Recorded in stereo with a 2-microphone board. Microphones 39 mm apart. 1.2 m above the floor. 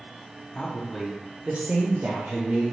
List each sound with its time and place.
0.6 s a woman speaking: 20° left (ahead or behind), 0.6 m; by 2.6 s 60° right (ahead or behind), 0.9 m